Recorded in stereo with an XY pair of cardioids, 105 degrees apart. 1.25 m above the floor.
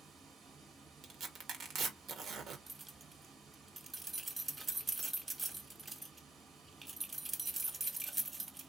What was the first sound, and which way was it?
Running water, 65° right.